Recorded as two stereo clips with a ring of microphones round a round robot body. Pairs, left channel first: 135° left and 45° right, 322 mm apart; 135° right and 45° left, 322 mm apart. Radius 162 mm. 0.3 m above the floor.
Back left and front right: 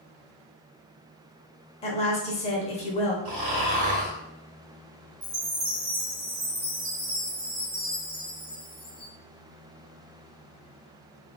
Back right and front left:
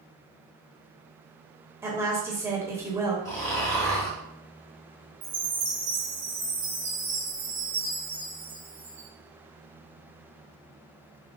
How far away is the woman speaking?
About 0.9 m.